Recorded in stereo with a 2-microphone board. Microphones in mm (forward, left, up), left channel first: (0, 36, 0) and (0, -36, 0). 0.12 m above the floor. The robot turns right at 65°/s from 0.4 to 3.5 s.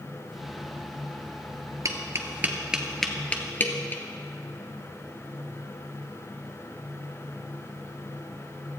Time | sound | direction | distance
1.9 | tapping | 50° right (ahead or behind) | 1.1 m